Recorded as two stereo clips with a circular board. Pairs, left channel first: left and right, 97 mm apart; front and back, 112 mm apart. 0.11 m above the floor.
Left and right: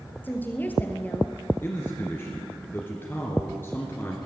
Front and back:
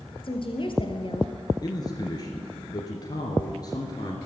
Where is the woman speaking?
25° left, 1.9 m.